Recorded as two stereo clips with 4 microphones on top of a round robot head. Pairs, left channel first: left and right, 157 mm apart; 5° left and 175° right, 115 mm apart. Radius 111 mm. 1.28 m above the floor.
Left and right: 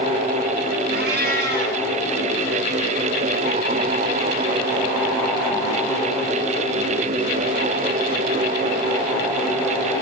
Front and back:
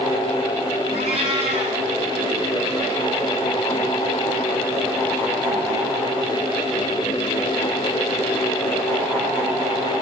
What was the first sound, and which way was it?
A cat meowing, 125° right.